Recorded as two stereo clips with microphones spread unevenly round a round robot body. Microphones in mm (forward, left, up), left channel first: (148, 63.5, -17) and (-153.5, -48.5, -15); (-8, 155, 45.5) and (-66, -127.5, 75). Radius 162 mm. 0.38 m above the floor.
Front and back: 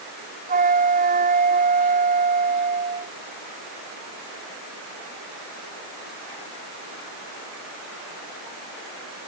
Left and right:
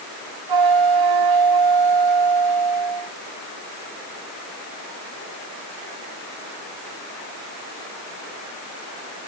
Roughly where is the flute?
Right.